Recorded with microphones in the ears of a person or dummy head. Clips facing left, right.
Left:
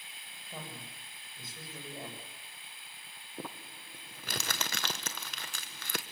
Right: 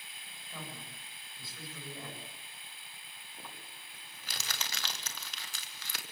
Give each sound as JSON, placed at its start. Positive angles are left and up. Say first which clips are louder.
{"t": 0.5, "sound": "a woman speaking", "louder": "left 1 dB", "side_deg": 20, "distance_m": 9.5}
{"t": 3.4, "sound": "crumpling", "louder": "left 9 dB", "side_deg": 50, "distance_m": 1.6}